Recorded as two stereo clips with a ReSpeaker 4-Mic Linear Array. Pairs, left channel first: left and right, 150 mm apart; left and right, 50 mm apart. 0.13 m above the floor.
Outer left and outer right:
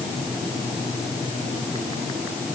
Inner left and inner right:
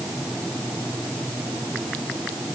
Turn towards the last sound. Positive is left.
No sound to turn to.